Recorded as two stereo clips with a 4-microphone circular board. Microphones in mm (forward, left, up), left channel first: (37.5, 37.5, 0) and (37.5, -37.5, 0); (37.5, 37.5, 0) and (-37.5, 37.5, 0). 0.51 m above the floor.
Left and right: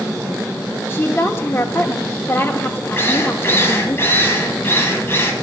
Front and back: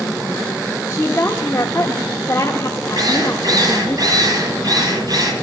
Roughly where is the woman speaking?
Ahead left.